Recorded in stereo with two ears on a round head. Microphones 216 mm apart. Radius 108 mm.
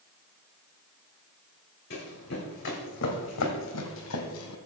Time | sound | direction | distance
1.9 | running footsteps | 45° left (ahead or behind) | 3.5 m